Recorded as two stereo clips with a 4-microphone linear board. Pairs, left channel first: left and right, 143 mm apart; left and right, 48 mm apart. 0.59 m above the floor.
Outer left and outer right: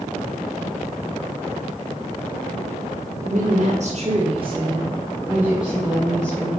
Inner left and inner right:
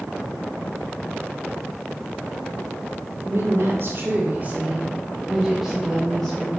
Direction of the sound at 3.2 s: 65° right (ahead or behind).